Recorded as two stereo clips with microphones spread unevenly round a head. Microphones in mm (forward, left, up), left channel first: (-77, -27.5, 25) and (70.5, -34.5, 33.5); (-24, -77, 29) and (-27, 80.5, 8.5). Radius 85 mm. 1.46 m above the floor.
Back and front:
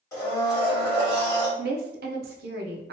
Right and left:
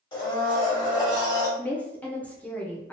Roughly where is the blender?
Behind right.